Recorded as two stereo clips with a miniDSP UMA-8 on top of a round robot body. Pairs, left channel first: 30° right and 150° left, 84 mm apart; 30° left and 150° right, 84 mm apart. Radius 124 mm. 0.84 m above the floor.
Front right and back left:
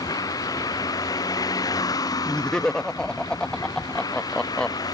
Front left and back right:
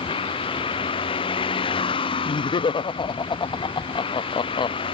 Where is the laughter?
50° left.